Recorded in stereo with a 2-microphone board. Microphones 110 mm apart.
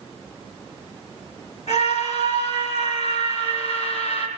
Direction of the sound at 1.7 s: 80° left.